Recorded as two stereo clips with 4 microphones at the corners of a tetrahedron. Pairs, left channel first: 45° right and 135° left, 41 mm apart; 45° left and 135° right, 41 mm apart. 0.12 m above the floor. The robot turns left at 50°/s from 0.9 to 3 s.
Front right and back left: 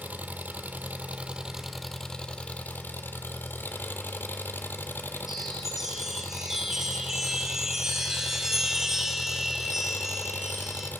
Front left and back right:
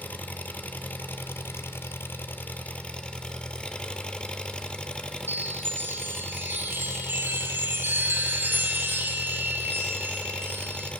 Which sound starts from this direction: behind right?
A chime, at 5.3 s.